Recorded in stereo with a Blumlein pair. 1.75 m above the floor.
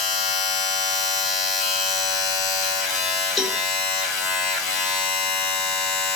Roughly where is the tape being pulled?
I don't hear tape being pulled.